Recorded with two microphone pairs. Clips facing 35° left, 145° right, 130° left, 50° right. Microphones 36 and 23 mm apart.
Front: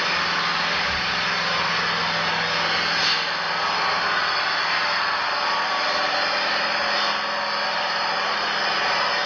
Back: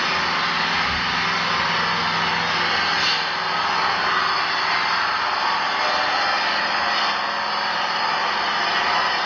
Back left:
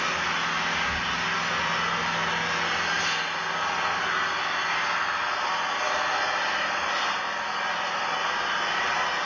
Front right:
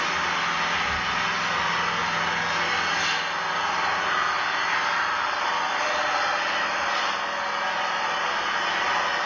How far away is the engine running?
About 0.8 m.